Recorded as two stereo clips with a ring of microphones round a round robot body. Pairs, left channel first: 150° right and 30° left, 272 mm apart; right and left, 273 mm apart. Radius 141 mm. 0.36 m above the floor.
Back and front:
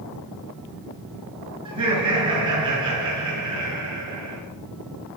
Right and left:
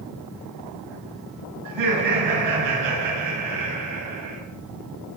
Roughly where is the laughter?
Left.